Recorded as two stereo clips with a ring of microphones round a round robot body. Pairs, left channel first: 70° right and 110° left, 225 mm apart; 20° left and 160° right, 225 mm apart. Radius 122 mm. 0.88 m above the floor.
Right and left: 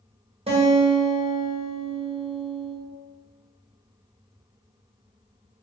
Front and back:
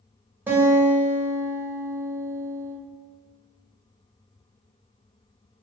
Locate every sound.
0.5 s a guitar: 130° left, 1.0 m